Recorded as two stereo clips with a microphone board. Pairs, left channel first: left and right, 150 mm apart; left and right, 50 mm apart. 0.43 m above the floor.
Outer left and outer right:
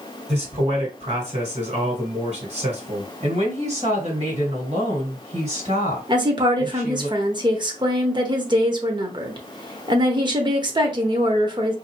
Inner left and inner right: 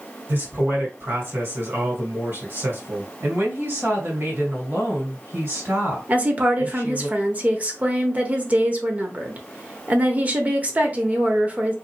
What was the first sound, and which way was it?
A man speaking, 45° right (ahead or behind).